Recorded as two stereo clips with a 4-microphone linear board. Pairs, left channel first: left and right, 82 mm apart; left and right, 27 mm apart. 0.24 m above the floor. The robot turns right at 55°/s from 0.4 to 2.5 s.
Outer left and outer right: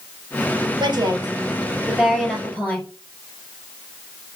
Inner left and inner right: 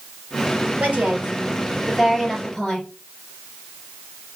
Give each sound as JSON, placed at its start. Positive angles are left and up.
{"t": 0.8, "sound": "a woman speaking", "azimuth_deg": -75, "distance_m": 4.0}